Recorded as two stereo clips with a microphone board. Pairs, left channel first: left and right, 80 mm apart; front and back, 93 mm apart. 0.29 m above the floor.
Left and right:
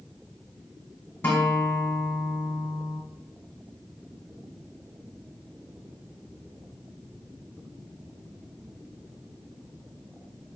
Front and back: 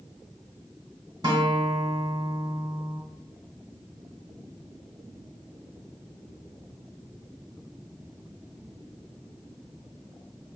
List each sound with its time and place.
1.2 s a guitar: 150° left, 1.1 m